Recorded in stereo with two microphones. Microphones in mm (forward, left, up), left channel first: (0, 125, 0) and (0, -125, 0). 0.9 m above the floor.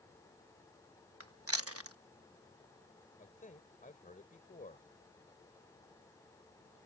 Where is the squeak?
No squeak in this recording.